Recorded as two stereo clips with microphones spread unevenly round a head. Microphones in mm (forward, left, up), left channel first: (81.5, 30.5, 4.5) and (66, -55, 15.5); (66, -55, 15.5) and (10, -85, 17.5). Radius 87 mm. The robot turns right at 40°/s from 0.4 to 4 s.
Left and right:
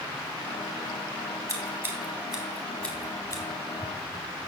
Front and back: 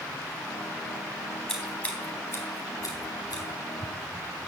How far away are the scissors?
About 4 m.